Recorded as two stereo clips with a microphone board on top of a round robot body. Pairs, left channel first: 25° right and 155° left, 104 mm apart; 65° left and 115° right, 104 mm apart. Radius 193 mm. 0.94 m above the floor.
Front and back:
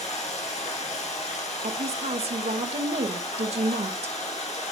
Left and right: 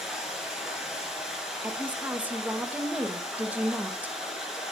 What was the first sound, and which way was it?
Running water, 30° right.